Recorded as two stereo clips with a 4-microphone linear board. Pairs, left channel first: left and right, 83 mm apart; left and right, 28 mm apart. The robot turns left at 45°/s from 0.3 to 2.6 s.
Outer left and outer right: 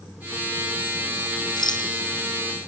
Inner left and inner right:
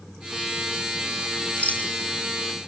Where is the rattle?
55° left (ahead or behind), 3 m; by 1.9 s 65° left (ahead or behind), 3 m.